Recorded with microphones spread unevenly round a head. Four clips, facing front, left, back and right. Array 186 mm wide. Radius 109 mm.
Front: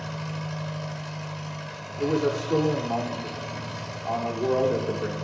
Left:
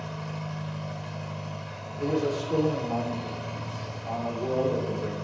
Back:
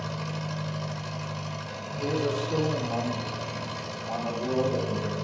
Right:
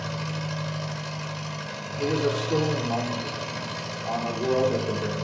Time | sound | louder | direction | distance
0.0 | an engine running | right 4 dB, even | 120° right | 2.5 m
2.0 | a man speaking | right 2 dB, front 4 dB | 25° right | 2.5 m